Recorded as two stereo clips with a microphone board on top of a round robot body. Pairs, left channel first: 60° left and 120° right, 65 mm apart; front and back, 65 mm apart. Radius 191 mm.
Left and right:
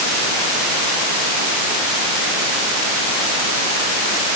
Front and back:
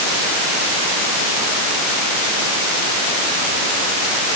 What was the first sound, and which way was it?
Only background noise.